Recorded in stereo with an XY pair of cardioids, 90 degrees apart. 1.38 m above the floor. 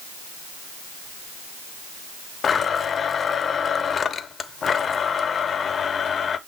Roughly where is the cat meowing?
I don't hear a cat meowing.